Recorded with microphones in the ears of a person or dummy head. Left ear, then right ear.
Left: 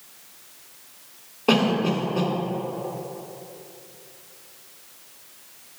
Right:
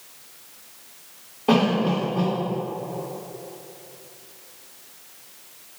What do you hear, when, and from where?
1.5 s a cough: 25° left (ahead or behind), 3 m